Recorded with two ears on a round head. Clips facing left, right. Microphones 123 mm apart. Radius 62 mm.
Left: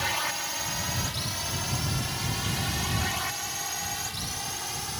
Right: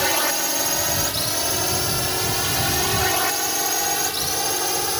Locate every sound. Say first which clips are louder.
0.0 s a drone: right 9 dB; 65° right (ahead or behind); by 5.0 s 75° right (ahead or behind)